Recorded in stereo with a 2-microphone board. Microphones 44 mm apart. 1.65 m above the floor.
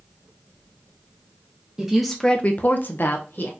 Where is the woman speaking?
10° right (ahead or behind), 0.6 m; by 3.5 s 50° left (ahead or behind), 1.2 m.